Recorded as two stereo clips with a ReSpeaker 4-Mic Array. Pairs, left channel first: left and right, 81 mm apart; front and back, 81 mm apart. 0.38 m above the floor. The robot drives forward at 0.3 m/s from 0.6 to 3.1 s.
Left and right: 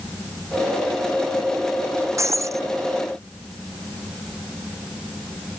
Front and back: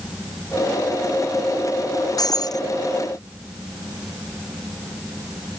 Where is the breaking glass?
40° right.